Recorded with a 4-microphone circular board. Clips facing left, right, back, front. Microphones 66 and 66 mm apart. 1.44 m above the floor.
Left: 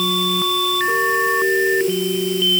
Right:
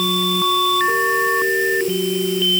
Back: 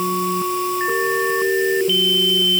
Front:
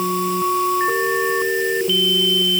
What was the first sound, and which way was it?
Only background noise.